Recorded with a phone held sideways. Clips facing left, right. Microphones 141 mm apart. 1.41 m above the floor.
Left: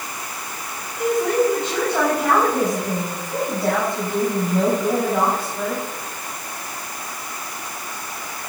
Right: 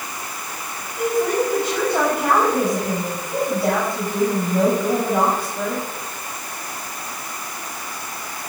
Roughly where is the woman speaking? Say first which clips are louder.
Left 1 dB; centre.